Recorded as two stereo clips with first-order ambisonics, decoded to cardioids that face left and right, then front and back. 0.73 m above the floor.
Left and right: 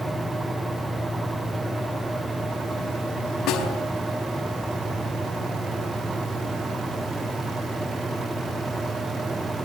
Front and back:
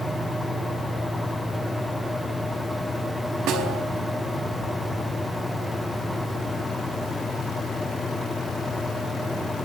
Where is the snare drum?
140° left, 4 m.